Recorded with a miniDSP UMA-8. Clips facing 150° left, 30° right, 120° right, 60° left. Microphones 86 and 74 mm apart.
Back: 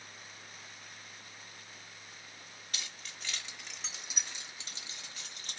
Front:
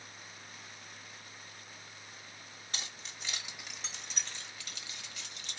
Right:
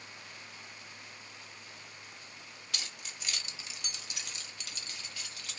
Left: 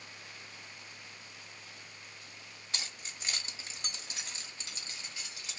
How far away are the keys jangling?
About 1.1 m.